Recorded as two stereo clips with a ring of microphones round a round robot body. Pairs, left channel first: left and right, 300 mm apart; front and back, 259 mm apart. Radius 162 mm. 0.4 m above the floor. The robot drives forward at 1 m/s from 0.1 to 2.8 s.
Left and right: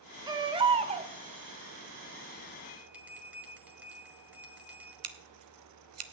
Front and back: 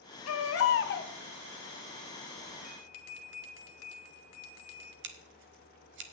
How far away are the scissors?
About 1.0 m.